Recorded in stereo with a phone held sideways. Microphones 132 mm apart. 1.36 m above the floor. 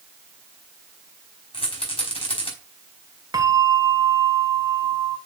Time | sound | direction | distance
1.5 | a rattle | 45° left (ahead or behind) | 5 m
3.3 | a bell | 30° right (ahead or behind) | 1.8 m